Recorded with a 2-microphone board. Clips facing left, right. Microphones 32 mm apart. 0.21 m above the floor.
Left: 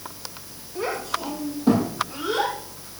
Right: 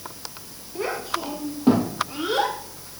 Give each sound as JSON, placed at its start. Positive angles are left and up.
{"t": 0.8, "sound": "a child speaking", "side_deg": -15, "distance_m": 4.0}